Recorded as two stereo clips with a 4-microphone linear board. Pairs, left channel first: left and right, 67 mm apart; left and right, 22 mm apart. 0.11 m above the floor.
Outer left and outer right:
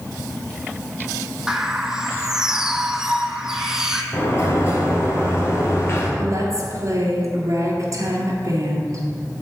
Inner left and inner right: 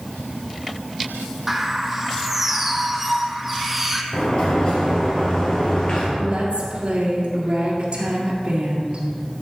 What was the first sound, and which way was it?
A bird, 10° right (ahead or behind).